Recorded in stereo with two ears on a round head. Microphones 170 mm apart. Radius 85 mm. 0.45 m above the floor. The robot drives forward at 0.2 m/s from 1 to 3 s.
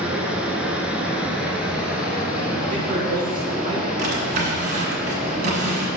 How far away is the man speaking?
About 3 m.